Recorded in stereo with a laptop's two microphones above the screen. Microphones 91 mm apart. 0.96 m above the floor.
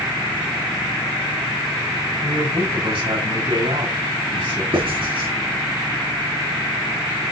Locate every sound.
2.2 s a man speaking: 90° right, 5 m
4.7 s writing: 70° right (ahead or behind), 6 m